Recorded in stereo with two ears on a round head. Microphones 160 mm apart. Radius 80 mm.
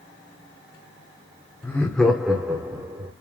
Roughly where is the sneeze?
No sneeze in this recording.